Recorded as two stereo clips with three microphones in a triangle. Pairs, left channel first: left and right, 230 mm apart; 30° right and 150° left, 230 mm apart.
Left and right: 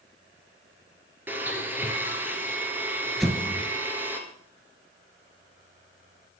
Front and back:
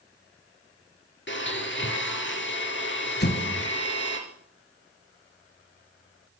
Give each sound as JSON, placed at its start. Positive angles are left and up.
{"t": 1.3, "sound": "a blender", "azimuth_deg": -10, "distance_m": 2.5}
{"t": 3.2, "sound": "an explosion", "azimuth_deg": 0, "distance_m": 1.6}